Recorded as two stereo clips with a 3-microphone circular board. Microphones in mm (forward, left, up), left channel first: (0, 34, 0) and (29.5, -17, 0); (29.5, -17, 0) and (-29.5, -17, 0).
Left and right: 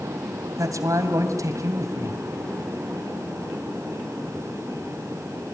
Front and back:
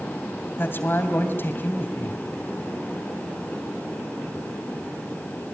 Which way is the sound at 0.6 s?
50° right.